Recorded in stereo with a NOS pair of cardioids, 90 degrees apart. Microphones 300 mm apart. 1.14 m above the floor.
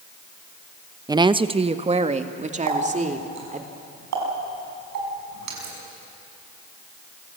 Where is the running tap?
65° right, 6 m.